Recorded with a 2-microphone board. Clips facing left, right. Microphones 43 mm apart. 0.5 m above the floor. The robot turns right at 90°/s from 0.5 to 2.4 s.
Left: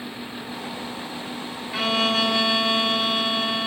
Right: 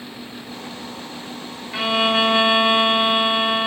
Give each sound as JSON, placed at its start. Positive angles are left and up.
{"t": 1.7, "sound": "a violin", "azimuth_deg": -160}